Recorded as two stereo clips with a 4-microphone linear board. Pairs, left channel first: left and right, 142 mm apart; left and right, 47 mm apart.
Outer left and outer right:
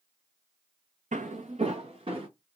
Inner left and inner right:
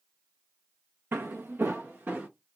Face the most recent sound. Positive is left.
turn(degrees=-40)  # may be behind; listen again after turning